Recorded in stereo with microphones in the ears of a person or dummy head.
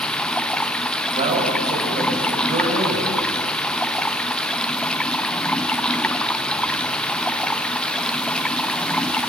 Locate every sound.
0.0 s running water: 5° left (ahead or behind), 0.8 m
1.1 s a man speaking: 40° right (ahead or behind), 6.5 m